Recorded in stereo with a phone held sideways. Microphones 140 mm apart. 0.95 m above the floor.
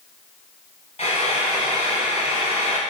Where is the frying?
50° left (ahead or behind), 1.1 m.